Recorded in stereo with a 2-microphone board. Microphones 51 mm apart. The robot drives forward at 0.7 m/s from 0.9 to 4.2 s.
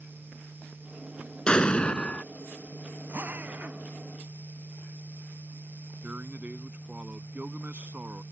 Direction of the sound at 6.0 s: 30° right (ahead or behind).